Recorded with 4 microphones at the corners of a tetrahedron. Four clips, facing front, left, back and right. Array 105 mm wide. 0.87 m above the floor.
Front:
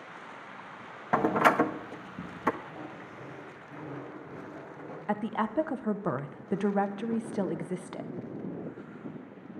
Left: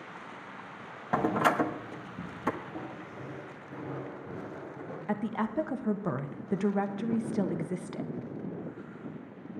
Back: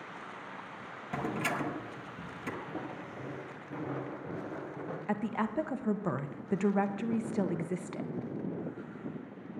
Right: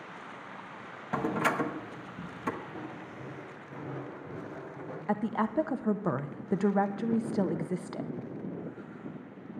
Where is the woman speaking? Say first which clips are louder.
Right 2 dB, front 3 dB; 65° right, 0.6 m.